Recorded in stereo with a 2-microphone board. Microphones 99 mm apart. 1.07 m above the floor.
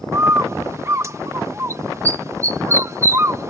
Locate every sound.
0.1 s a bird: 30° right (ahead or behind)